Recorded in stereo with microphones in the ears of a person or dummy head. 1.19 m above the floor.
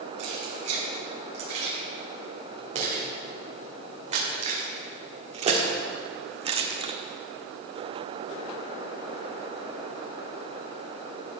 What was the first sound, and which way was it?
Keys jangling, 45° right (ahead or behind).